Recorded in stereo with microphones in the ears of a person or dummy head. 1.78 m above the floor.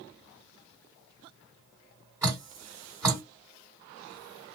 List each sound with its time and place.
2.2 s dripping: 20° right (ahead or behind), 2 m